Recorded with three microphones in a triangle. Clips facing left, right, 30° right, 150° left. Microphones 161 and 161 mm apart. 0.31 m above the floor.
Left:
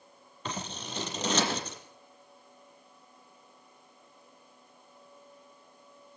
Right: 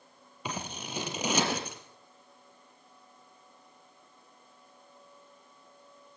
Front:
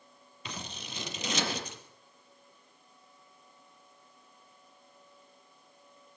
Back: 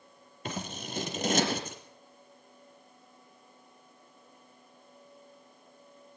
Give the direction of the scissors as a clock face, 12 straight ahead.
6 o'clock.